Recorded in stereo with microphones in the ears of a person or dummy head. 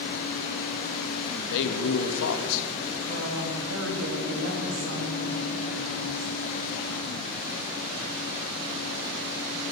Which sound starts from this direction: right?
A woman speaking, at 3.1 s.